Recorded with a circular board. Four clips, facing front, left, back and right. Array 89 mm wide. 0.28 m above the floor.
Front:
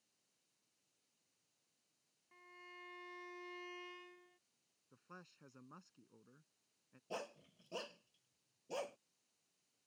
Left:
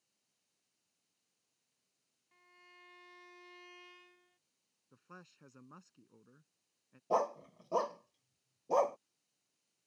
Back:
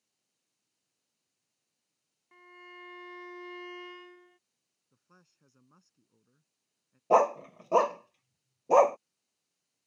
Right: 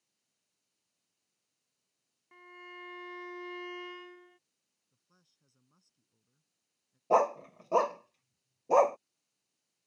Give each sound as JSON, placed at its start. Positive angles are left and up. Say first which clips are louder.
{"t": 2.3, "sound": "a violin", "louder": "right 14 dB, back 8 dB", "azimuth_deg": -115}
{"t": 4.9, "sound": "a man speaking", "louder": "left 18 dB, front 6 dB", "azimuth_deg": 70}
{"t": 7.1, "sound": "a dog barking", "louder": "right 7 dB, back 25 dB", "azimuth_deg": -155}